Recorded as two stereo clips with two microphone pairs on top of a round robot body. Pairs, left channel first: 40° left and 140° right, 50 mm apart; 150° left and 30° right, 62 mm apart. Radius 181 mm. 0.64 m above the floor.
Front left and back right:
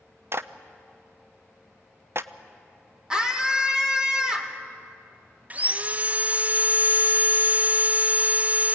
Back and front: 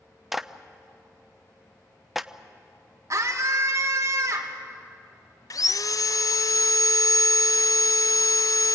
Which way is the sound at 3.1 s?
65° right.